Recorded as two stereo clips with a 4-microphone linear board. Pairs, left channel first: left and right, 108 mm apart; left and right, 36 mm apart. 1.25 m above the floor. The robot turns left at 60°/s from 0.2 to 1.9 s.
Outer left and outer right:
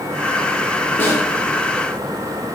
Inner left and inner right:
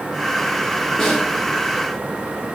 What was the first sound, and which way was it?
A snare drum, 20° left (ahead or behind).